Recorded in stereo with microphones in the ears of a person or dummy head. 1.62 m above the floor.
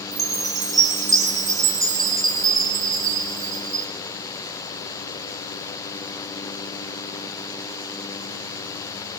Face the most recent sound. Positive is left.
turn(degrees=-20)  # may be behind; listen again after turning